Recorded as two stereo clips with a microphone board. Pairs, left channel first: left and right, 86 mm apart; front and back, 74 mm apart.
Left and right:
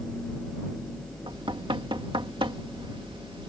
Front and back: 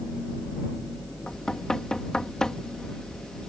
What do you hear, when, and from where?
1.3 s knocking: 80° right